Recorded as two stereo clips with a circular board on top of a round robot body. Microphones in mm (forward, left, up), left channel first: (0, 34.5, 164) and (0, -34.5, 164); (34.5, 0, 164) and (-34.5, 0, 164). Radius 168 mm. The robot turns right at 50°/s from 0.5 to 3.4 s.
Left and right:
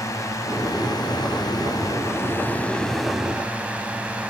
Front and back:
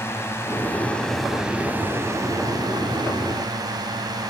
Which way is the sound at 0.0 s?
55° left.